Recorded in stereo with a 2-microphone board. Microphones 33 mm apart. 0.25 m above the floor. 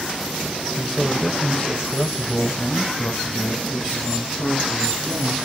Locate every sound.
0.8 s a man speaking: 5° right (ahead or behind), 1.1 m; by 5.3 s 60° left (ahead or behind), 3 m